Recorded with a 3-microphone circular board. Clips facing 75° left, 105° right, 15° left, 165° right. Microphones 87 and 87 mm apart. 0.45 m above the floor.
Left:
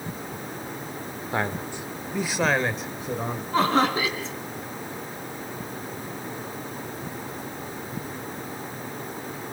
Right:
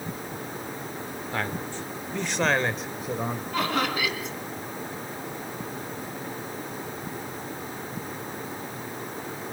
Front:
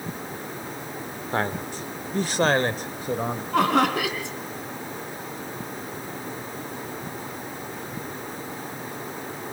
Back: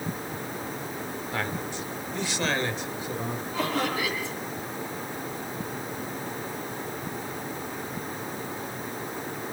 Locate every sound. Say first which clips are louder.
1.3 s a man speaking: left 3 dB, front 6 dB; 25° left, 1.3 m; by 3.4 s 20° right, 2.5 m
3.5 s laughter: left 6 dB, front 8 dB; 20° left, 5 m